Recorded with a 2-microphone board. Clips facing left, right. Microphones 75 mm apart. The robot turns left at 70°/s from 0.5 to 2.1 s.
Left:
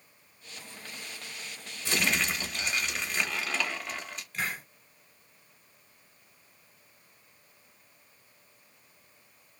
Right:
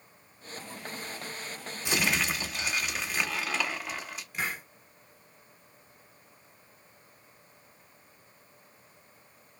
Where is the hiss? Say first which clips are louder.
Even; 10° right (ahead or behind), 1.1 m.